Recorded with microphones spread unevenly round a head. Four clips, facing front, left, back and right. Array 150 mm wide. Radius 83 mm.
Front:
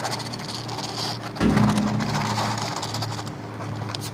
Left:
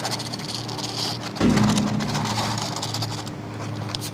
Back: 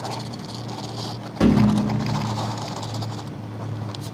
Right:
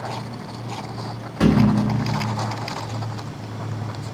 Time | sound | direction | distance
1.4 | a thud | 175° left | 1.2 m